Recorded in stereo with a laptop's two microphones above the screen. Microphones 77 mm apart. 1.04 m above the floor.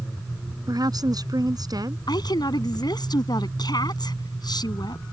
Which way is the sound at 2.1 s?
65° left (ahead or behind).